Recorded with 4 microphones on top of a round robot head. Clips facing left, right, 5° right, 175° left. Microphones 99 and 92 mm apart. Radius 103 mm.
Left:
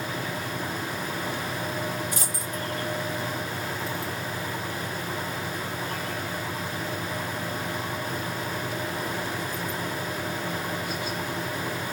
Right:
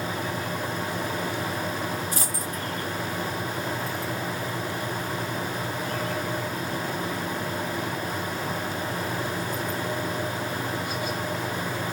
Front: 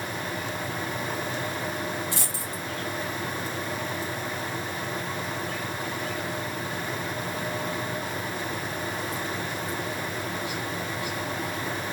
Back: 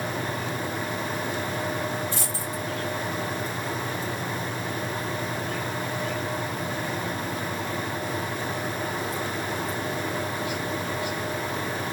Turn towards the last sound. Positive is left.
turn(degrees=-30)